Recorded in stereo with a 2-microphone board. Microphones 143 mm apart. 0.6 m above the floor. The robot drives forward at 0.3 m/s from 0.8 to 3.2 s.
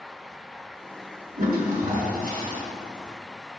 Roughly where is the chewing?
I don't hear chewing.